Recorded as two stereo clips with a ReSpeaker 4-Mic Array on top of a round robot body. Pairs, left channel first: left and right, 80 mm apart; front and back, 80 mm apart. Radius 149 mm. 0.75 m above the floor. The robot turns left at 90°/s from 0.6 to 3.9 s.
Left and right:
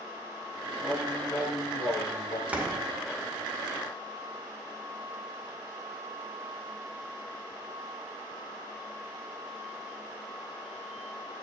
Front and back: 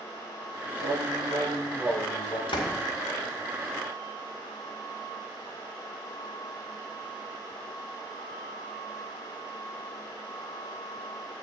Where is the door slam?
15° right, 1.9 m; by 2.8 s 40° right, 1.9 m.